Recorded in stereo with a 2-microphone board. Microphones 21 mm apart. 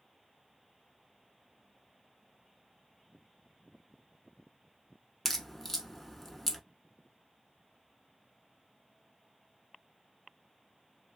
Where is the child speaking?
No child speaking in this recording.